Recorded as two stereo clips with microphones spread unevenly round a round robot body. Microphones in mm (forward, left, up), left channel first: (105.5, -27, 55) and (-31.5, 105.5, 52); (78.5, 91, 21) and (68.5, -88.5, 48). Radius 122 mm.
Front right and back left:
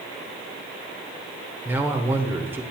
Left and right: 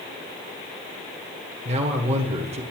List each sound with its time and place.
1.6 s a man speaking: 150° right, 1.4 m